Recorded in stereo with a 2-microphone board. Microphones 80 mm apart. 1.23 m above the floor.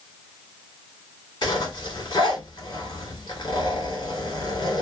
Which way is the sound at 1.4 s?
55° left (ahead or behind).